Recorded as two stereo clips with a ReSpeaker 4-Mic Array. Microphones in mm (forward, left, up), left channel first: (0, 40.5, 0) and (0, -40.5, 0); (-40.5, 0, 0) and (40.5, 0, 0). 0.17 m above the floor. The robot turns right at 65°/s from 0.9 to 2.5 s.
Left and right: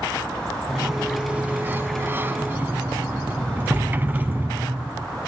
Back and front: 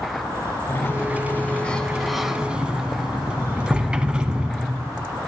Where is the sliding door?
170° right, 1.0 m; by 5.1 s 65° right, 1.0 m.